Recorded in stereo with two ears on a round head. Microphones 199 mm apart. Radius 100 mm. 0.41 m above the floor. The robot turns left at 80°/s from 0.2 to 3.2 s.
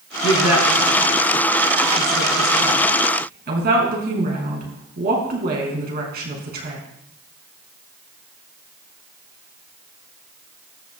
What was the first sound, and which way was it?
A woman speaking, 70° left (ahead or behind).